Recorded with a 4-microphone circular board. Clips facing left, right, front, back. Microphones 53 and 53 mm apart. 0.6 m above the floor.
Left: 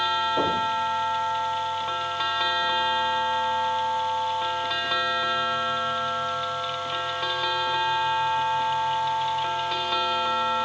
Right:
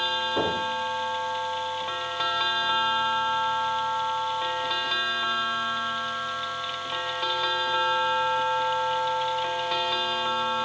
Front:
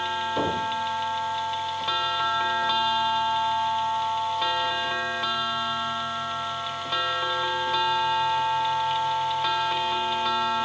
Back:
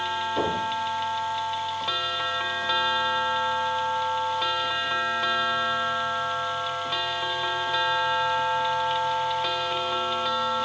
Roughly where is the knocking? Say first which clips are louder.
Even, even; right.